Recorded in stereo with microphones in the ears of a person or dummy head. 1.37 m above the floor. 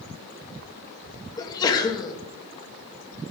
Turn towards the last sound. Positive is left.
turn(degrees=20)  # may be behind; listen again after turning